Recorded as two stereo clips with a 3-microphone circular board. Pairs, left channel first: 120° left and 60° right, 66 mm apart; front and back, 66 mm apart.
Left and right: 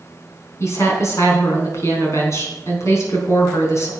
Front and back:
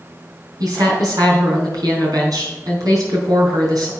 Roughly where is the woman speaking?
Behind.